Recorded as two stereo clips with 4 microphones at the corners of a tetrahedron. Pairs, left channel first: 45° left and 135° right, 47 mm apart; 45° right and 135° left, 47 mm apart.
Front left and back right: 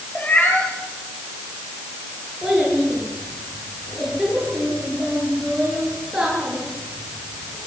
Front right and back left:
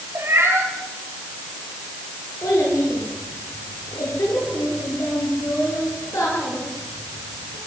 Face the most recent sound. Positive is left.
turn(degrees=-50)